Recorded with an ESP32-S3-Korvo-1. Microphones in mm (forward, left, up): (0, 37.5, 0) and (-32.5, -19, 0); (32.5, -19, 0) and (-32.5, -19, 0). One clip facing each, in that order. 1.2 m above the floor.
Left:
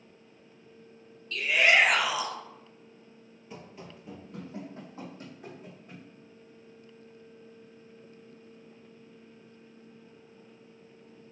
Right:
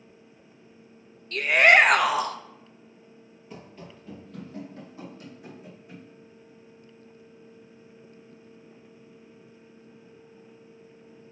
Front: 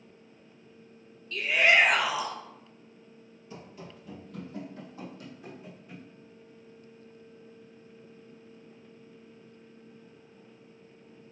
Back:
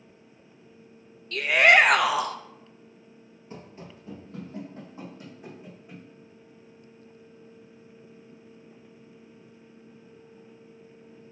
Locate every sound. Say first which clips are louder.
1.3 s a shout: right 6 dB, back 5 dB; 160° right, 0.7 m
3.5 s running footsteps: right 1 dB, back 2 dB; 150° left, 1.6 m; by 6.0 s 110° left, 4.5 m